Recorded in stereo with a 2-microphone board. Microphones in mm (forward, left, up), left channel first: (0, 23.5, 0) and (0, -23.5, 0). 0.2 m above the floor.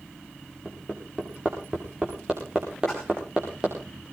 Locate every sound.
0.7 s hammering: 15° right (ahead or behind), 8 m
2.9 s a splash: 10° left (ahead or behind), 9.5 m